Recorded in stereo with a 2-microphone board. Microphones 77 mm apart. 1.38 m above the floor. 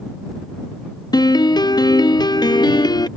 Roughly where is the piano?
Left.